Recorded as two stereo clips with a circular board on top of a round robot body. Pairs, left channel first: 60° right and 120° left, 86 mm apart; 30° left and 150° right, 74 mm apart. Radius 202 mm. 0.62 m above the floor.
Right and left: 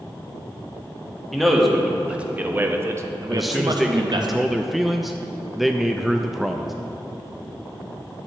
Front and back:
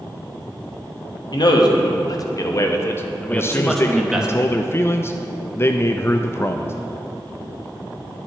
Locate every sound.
1.3 s a man speaking: 30° left, 1.6 m; by 4.3 s 130° left, 1.2 m
3.3 s a man speaking: 35° left, 0.7 m